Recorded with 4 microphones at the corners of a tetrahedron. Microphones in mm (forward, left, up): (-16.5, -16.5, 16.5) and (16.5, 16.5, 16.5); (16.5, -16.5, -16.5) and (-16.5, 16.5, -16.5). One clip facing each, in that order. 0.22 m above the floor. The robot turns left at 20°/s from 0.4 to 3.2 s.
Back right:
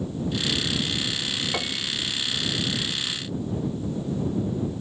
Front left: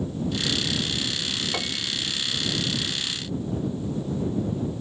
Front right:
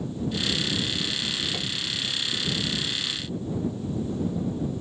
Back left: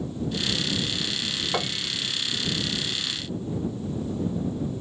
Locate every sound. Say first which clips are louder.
1.5 s a piano: back right 1 dB, back left 3 dB; 140° left; by 2.0 s 130° left